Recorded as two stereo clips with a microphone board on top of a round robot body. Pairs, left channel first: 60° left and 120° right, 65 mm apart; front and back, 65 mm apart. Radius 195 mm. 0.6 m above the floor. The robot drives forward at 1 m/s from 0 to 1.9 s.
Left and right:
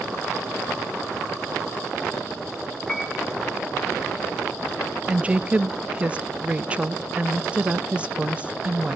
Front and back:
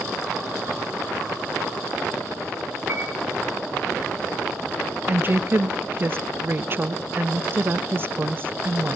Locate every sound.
2.9 s a piano: 135° left, 2.0 m
5.1 s a woman speaking: 175° right, 0.5 m